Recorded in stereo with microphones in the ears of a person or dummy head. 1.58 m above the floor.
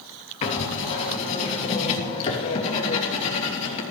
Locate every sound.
0.4 s writing: 35° left (ahead or behind), 3 m